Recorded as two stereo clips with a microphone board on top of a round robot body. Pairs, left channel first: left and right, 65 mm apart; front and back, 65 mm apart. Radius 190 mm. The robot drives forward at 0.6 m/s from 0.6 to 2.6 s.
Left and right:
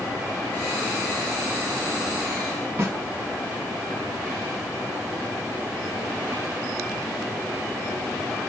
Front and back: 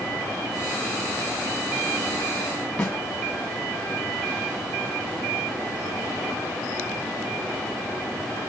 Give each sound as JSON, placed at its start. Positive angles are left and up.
{"t": 2.8, "sound": "a snare drum", "azimuth_deg": -65, "distance_m": 1.4}